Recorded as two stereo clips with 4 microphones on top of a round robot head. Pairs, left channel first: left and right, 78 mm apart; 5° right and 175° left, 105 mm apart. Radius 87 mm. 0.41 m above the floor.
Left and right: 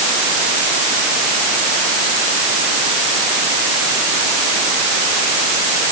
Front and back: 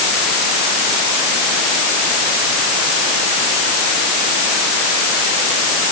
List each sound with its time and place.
Only background noise.